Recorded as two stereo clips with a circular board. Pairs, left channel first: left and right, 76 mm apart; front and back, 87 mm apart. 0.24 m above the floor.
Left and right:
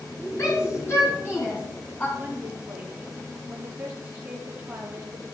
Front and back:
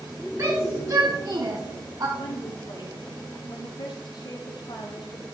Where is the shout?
130° left, 3.5 m; by 2.1 s 155° left, 2.5 m.